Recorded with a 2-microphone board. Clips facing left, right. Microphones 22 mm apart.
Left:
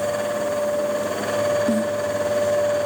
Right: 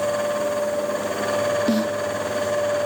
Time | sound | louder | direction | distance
1.7 | a snare drum | even | 45° right (ahead or behind) | ?